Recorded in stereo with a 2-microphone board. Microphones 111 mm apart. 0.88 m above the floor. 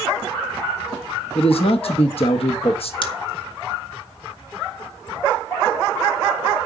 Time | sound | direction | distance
1.4 | a man speaking | 60° left (ahead or behind) | 1.0 m
3.0 | scissors | 50° left (ahead or behind) | 1.5 m